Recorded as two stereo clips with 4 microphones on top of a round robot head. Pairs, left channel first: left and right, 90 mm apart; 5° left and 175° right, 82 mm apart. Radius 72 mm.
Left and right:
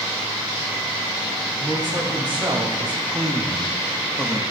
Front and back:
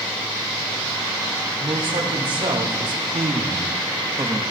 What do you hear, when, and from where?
1.6 s a man speaking: 160° right, 3 m; by 4.4 s 150° left, 1.0 m